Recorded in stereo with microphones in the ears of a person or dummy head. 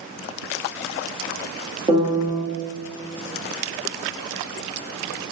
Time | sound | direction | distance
1.9 | a piano | 20° right (ahead or behind) | 0.9 m